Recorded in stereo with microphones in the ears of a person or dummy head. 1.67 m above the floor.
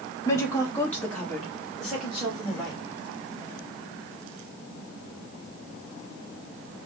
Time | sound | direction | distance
0.2 | a woman speaking | 25° left (ahead or behind) | 1.3 m